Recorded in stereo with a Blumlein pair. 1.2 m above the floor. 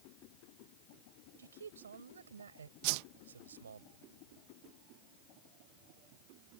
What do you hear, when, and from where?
1.4 s a man speaking: 70° right
2.8 s a whoosh: 45° right